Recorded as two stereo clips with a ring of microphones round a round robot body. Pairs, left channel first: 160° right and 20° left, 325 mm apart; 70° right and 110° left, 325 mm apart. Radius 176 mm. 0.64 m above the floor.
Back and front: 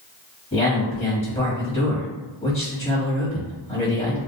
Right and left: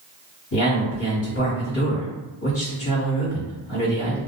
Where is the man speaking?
90° right, 1.6 m.